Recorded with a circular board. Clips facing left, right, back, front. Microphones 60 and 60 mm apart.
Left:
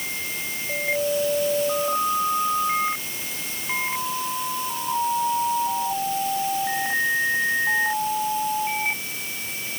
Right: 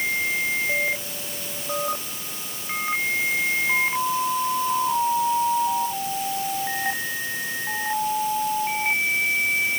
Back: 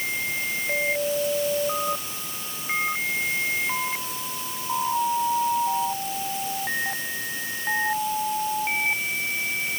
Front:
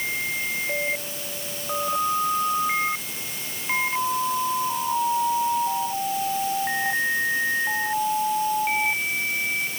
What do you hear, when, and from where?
Only background noise.